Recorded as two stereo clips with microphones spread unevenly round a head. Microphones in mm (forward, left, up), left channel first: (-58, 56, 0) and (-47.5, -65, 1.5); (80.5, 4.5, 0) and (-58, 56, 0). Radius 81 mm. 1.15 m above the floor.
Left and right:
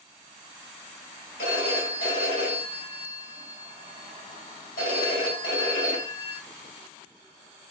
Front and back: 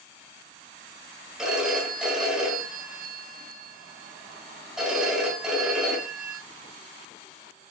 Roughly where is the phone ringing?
Left.